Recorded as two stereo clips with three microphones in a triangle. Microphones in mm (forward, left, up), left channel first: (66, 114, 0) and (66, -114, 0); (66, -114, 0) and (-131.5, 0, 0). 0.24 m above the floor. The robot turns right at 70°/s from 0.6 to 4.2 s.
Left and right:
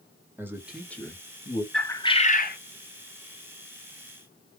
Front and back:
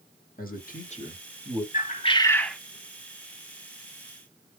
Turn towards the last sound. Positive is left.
turn(degrees=175)